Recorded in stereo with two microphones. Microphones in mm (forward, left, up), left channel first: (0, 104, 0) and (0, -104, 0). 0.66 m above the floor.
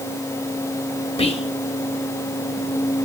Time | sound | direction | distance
1.2 | whispering | 30° left (ahead or behind) | 0.7 m